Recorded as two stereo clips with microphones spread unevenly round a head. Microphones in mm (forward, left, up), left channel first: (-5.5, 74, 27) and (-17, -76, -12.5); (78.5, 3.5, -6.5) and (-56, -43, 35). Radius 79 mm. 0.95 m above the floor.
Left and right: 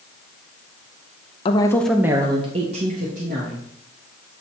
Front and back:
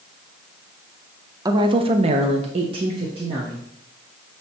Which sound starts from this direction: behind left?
A woman speaking, at 1.4 s.